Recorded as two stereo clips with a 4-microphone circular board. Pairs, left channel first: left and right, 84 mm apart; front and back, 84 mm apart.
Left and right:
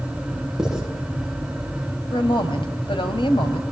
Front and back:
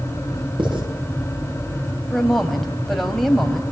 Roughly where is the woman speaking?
Left.